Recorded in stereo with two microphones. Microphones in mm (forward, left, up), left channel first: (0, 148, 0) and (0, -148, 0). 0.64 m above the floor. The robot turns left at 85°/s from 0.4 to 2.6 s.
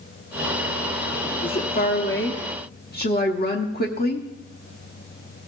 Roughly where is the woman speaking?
Behind left.